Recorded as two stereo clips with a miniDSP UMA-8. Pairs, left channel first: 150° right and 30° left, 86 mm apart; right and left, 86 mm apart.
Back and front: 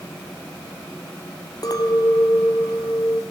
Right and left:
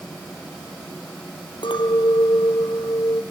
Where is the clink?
110° right, 2.5 m.